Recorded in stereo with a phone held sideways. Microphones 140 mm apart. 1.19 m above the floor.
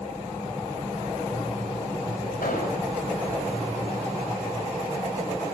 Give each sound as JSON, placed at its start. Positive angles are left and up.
{"t": 2.4, "sound": "an explosion", "side_deg": 85, "distance_m": 6.5}